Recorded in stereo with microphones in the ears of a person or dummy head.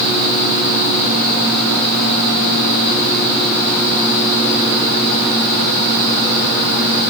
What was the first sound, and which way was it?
Only background noise.